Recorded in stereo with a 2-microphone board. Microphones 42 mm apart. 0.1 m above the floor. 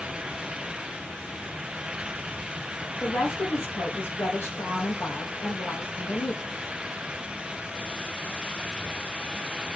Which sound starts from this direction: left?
A woman speaking, at 3.0 s.